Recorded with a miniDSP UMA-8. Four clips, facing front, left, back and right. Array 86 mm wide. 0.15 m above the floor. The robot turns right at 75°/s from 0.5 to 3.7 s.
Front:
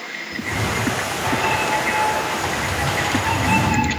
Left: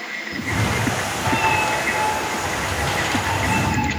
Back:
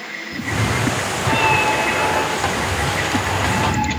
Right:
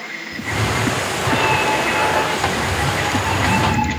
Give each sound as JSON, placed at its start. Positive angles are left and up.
{"t": 0.3, "sound": "a cat meowing", "azimuth_deg": 115, "distance_m": 0.6}